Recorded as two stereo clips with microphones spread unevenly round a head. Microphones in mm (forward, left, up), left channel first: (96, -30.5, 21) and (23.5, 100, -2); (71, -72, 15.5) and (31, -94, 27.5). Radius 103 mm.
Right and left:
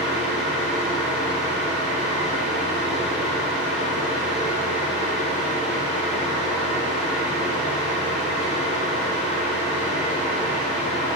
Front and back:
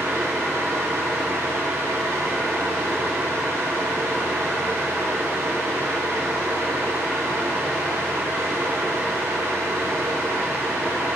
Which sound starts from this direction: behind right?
A fan, at 0.0 s.